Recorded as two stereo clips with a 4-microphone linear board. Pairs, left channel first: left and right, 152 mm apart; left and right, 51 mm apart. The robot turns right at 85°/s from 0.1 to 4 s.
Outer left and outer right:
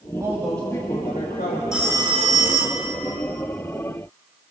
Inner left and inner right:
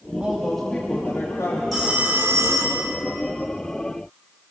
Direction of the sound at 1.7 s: 175° right.